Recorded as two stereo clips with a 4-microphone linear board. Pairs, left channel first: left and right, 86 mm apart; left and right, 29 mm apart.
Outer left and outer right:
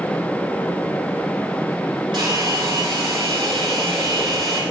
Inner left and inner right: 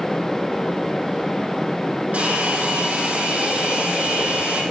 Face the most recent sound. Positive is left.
turn(degrees=-70)  # may be behind; listen again after turning